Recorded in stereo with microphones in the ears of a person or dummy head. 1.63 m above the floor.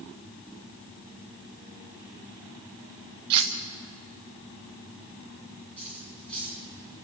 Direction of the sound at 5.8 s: 5° left (ahead or behind).